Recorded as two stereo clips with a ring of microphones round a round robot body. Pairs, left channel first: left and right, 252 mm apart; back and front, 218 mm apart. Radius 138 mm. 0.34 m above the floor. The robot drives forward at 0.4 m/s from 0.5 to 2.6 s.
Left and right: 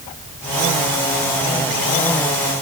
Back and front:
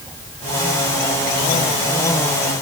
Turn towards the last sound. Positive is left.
No sound to turn to.